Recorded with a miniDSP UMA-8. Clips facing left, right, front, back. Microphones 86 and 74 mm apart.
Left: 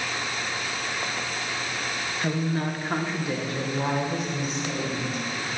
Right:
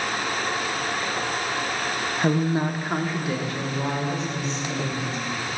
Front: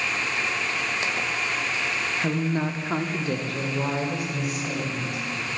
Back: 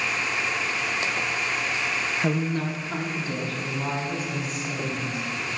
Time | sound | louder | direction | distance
2.2 | a woman speaking | right 5 dB, front 1 dB | 115° right | 0.6 m